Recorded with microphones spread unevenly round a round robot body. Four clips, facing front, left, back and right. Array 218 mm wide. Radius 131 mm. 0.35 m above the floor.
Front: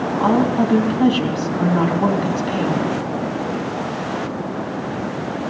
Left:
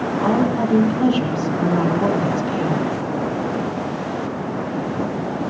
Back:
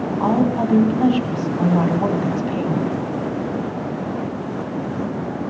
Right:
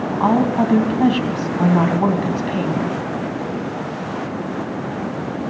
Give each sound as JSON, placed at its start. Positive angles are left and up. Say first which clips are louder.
{"t": 0.2, "sound": "a woman speaking", "louder": "right 3 dB, front 2 dB", "azimuth_deg": -75, "distance_m": 2.5}